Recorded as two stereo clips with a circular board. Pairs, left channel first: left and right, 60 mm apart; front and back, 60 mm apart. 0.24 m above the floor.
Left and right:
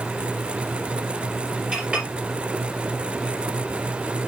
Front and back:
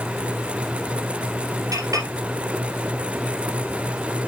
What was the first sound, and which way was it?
A clink, 165° right.